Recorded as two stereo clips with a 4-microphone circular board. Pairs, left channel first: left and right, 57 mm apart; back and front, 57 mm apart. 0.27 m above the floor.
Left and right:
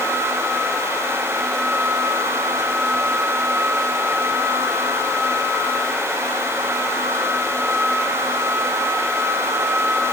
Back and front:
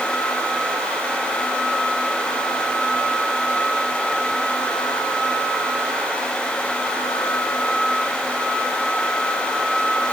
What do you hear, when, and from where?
Only background noise.